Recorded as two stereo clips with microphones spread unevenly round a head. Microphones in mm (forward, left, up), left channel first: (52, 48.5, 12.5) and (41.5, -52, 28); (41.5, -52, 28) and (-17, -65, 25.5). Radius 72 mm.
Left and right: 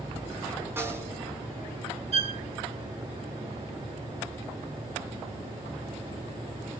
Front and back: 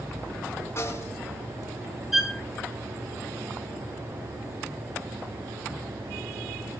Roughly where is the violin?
Right.